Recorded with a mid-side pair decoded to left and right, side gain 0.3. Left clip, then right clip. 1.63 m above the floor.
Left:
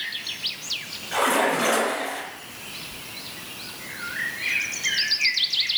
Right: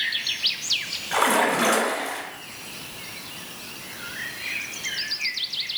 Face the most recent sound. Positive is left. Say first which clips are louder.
# right 1 dB
turn(degrees=-65)